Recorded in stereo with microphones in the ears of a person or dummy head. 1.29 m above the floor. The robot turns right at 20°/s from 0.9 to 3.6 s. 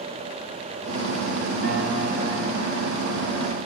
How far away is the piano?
About 4 m.